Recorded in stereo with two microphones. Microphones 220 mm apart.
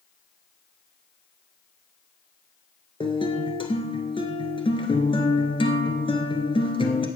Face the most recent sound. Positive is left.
turn(degrees=25)  # may be behind; listen again after turning